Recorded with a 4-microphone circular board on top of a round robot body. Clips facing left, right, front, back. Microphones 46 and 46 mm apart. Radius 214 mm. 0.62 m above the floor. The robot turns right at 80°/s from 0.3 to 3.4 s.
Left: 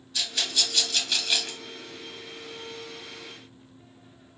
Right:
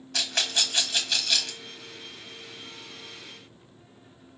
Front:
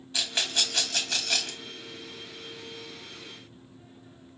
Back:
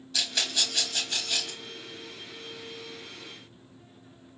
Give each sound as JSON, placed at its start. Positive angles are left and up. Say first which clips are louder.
{"t": 0.1, "sound": "a rattle", "louder": "right 2 dB, front 1 dB", "azimuth_deg": -65, "distance_m": 1.2}